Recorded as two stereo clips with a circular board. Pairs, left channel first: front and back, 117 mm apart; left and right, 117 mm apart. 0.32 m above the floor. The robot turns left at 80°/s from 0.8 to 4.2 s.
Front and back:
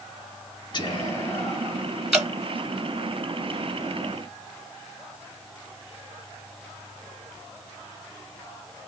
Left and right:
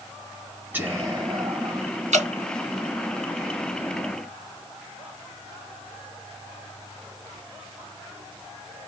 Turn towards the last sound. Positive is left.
turn(degrees=100)